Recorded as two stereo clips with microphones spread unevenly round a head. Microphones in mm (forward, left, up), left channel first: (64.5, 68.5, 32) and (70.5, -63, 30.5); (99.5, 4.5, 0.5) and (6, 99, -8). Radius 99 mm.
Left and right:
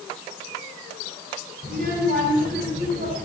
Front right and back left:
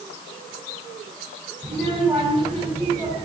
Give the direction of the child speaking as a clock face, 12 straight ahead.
4 o'clock.